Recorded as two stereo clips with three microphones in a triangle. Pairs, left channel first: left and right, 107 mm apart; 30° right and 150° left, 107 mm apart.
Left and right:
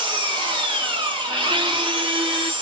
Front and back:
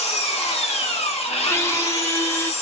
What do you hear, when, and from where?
0.0 s an engine running: 45° right, 1.2 m
1.5 s a squeak: 85° right, 0.6 m